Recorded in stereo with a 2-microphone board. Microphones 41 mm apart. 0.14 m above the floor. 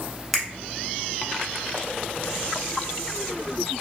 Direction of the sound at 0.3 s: 5° left (ahead or behind).